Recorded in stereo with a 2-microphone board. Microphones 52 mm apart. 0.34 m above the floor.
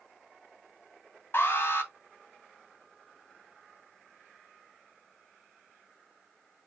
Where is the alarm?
50° left (ahead or behind), 3 m.